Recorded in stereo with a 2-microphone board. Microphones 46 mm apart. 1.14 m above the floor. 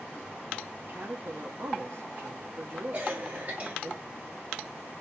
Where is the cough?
35° right (ahead or behind), 4 m.